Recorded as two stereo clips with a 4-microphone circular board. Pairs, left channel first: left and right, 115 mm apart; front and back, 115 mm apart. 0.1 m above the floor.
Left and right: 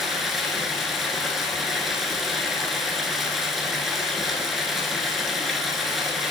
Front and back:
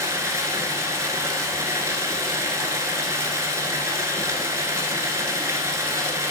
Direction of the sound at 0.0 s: Straight behind.